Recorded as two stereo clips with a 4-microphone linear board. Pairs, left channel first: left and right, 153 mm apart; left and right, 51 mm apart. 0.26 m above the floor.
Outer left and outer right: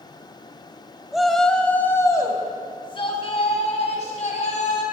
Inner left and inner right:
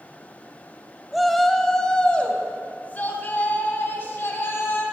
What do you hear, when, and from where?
1.1 s a shout: 5° right (ahead or behind), 1.3 m; by 4.8 s 50° left (ahead or behind), 2.5 m